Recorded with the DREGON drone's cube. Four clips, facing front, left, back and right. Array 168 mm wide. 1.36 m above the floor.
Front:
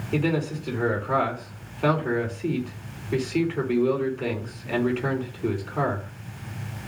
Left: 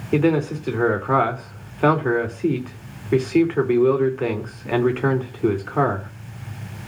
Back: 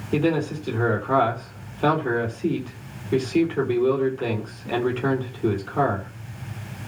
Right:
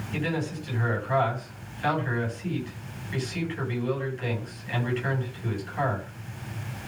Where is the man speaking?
105° left, 3.5 m.